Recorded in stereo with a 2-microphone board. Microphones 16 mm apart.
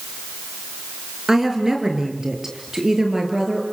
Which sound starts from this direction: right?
A woman speaking, at 1.3 s.